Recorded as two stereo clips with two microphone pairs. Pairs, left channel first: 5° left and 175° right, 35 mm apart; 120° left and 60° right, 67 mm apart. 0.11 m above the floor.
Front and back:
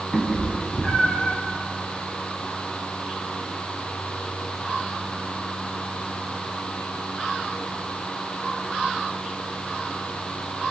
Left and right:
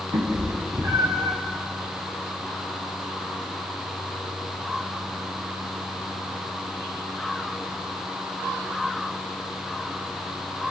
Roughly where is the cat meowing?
Ahead right.